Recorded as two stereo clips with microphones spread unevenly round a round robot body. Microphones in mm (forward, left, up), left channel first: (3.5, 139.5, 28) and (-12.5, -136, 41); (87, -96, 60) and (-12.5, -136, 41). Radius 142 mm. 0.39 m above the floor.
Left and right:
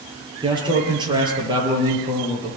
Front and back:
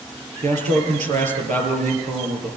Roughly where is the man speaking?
Behind.